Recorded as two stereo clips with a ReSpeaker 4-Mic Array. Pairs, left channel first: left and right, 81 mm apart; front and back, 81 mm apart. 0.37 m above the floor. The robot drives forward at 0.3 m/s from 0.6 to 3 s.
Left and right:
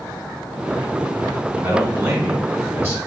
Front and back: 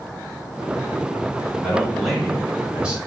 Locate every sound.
1.6 s a man speaking: 75° right, 1.1 m; by 3.0 s 115° right, 1.1 m